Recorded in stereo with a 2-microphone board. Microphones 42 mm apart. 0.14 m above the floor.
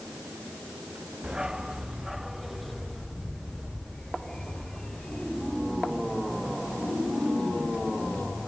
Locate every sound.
1.2 s a dog barking: 15° right (ahead or behind); by 8.5 s 30° left (ahead or behind)